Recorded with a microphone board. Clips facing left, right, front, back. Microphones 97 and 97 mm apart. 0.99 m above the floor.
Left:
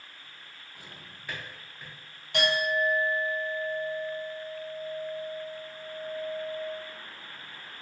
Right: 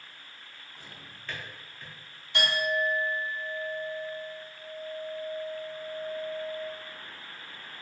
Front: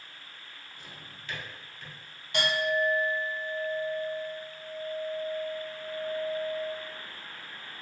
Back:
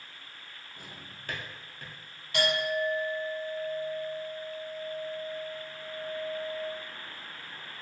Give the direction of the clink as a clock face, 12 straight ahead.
10 o'clock.